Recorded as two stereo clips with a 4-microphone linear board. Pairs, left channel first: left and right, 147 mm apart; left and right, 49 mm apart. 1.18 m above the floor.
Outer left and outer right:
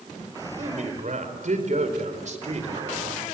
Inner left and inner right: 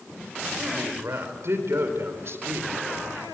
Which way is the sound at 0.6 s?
65° right (ahead or behind).